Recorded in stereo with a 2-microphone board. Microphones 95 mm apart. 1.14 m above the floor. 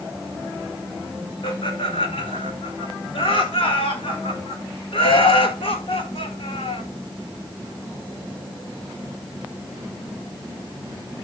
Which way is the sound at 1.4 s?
70° left (ahead or behind).